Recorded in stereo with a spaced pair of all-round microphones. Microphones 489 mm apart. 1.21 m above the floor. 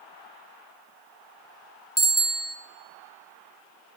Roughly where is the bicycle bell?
Left.